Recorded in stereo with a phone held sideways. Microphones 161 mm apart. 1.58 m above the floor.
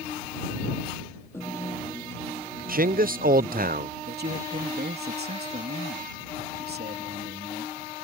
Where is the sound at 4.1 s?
85° right.